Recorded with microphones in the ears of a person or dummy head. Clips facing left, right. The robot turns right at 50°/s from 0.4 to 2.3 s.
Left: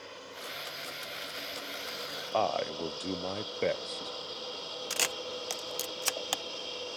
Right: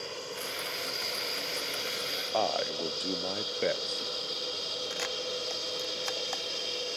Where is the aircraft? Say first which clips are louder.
Right 6 dB; 45° right (ahead or behind); by 7.0 s 35° right (ahead or behind).